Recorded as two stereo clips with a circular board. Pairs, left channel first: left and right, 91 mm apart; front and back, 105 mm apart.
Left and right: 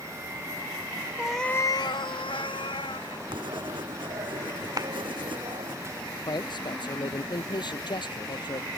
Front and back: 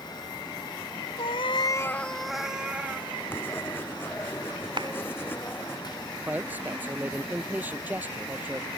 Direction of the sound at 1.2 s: 15° right.